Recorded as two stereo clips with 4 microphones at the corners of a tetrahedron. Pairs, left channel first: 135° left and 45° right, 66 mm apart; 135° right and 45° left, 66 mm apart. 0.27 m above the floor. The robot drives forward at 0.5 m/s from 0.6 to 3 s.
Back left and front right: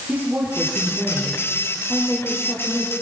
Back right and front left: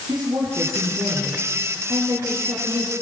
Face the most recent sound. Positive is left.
turn(degrees=35)